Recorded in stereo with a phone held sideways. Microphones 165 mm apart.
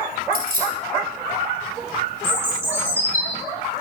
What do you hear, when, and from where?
0.3 s keys jangling: 70° right (ahead or behind), 8.5 m
2.2 s a bird: 15° right (ahead or behind), 5 m